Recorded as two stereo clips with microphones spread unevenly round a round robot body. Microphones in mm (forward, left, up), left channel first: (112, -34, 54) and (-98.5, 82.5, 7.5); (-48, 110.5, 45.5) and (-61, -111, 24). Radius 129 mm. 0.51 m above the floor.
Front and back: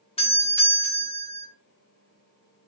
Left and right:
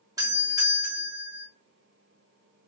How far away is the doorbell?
About 1.3 m.